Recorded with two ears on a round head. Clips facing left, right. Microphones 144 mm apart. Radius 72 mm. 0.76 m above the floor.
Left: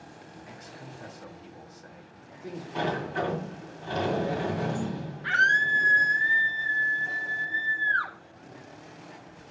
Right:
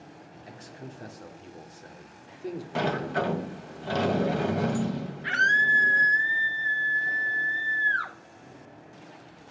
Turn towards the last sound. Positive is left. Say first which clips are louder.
# left 1 dB
turn(degrees=-25)  # may be behind; listen again after turning